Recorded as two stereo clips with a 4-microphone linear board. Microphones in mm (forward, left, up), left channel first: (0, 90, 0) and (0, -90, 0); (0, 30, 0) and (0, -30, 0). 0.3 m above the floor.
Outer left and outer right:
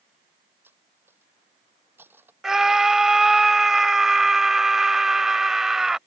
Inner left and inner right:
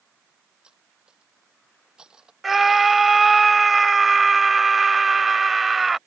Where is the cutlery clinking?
10° right (ahead or behind).